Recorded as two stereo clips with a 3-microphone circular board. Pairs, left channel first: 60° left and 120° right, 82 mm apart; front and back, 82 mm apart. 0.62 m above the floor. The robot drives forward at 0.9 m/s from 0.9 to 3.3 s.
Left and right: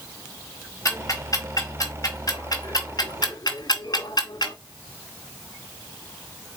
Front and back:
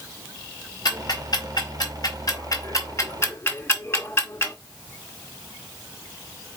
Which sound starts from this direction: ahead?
Ticking, at 0.8 s.